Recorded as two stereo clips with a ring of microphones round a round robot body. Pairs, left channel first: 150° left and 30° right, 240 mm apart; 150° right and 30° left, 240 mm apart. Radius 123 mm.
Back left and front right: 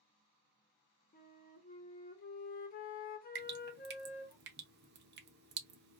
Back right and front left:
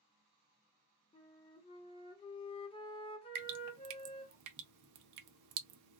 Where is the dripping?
20° left, 0.5 m.